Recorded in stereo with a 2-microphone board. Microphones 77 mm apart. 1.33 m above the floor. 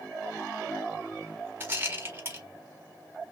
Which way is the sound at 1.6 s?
25° right (ahead or behind).